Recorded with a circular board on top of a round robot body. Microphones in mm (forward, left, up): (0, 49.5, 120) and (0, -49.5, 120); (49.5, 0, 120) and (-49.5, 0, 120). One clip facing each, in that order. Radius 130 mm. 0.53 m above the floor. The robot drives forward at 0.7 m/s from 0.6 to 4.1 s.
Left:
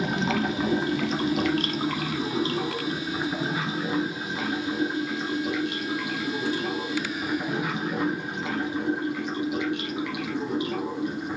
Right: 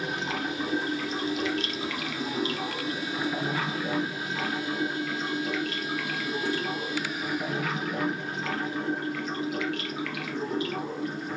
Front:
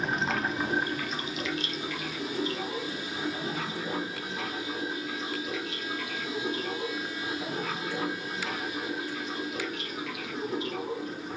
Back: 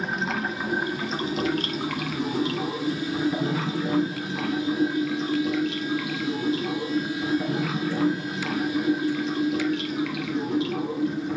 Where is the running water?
90° left, 0.8 m; by 11.4 s 165° left, 2.5 m.